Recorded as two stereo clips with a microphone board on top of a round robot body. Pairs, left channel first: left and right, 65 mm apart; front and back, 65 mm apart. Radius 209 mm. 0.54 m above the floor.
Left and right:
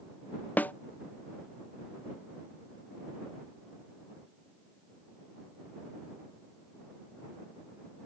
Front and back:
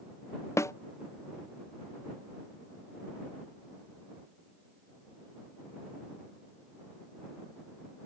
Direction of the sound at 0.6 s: 30° left.